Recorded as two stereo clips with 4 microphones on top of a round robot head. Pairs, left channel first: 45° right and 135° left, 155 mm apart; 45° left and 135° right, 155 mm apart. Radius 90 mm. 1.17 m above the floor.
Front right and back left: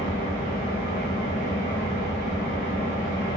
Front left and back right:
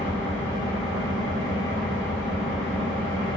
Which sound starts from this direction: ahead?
An engine running, at 0.0 s.